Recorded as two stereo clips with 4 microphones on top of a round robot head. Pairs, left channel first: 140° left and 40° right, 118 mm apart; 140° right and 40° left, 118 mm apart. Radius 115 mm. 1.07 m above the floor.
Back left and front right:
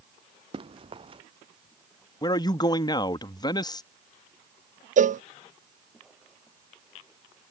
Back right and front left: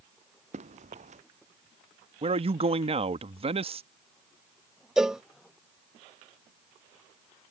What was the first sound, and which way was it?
Running footsteps, 10° left.